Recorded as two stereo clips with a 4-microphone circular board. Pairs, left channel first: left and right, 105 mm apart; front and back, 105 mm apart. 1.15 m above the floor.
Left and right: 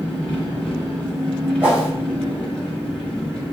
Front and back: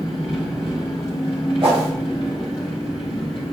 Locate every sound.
0.0 s an engine running: 10° left, 1.3 m
1.6 s a whoosh: 165° right, 1.7 m